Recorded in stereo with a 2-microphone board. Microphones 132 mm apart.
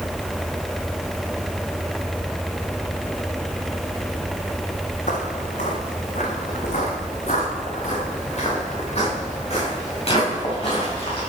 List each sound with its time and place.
5.1 s footsteps: 65° left (ahead or behind), 2.5 m; by 11.2 s 45° left (ahead or behind), 8.5 m